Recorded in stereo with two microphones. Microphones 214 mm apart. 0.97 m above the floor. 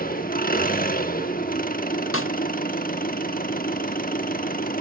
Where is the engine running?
40° left (ahead or behind), 1.1 m.